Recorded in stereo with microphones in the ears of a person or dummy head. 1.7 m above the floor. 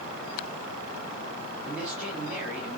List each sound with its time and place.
1.6 s a man speaking: 5° right (ahead or behind), 3.5 m